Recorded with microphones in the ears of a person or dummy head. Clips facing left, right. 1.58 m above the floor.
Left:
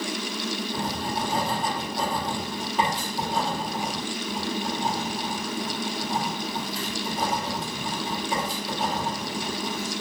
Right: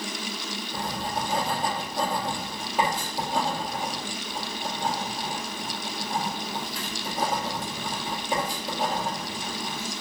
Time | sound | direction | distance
0.7 | writing | 15° right (ahead or behind) | 1.0 m